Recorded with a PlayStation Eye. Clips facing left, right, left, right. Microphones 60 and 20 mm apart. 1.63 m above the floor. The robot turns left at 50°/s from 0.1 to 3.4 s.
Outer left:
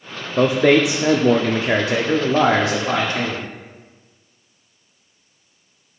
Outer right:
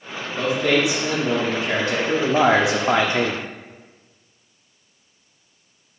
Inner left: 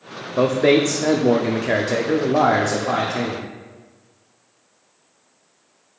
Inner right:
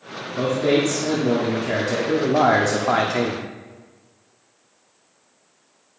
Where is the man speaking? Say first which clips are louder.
Outer left 6 dB, inner left 4 dB; 100° left, 0.6 m; by 3.4 s 55° right, 0.6 m.